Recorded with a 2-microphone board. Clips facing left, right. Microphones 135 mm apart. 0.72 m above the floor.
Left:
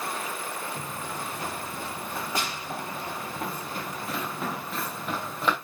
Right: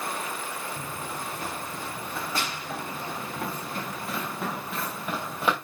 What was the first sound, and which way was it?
Running footsteps, 25° left (ahead or behind).